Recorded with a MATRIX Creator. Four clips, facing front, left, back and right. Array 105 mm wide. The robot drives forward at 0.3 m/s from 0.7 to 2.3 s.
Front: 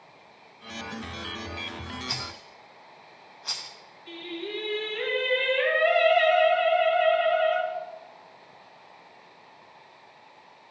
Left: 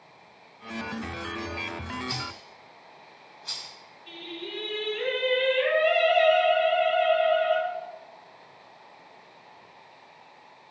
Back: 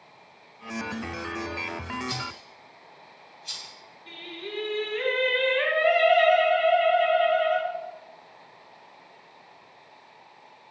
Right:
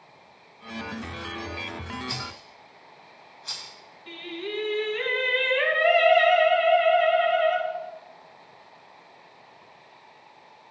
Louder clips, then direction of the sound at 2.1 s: Even, back 3 dB; 5° right.